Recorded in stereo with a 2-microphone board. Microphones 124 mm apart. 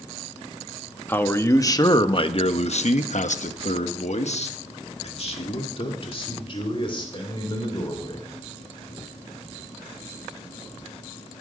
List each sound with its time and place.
1.1 s a man speaking: 15° left (ahead or behind), 1.2 m; by 8.2 s 40° left (ahead or behind), 3 m